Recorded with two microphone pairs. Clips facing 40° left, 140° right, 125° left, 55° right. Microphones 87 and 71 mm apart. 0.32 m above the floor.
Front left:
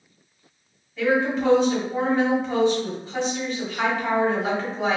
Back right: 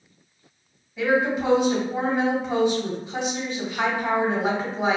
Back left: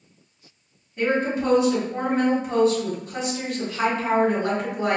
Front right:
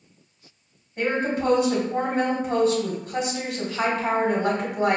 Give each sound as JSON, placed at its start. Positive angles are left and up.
{"t": 1.0, "sound": "a woman speaking", "azimuth_deg": -60, "distance_m": 1.4}